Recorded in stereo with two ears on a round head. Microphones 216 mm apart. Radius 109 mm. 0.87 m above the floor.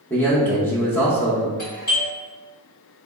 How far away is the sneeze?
I don't hear a sneeze.